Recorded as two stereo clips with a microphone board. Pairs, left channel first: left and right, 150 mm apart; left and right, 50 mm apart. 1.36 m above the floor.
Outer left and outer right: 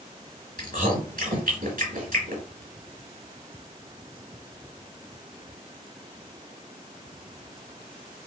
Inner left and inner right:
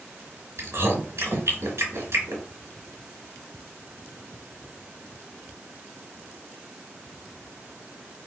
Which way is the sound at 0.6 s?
75° right (ahead or behind).